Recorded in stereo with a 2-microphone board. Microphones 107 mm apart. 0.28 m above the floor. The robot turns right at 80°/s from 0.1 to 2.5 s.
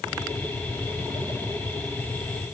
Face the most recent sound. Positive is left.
No sound to turn to.